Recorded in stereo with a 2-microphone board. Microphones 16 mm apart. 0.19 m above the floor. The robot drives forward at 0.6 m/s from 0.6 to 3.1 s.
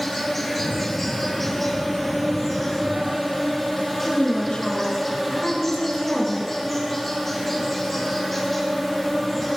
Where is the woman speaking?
50° left (ahead or behind), 2.5 m.